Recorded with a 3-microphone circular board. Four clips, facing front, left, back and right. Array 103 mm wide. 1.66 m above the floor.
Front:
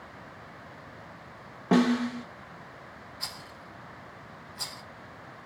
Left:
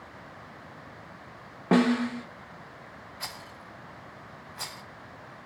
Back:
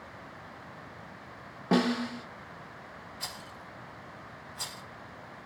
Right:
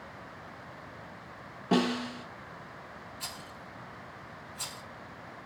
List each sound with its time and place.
1.7 s a snare drum: 80° left, 1.0 m
3.2 s a rattle: 95° left, 1.0 m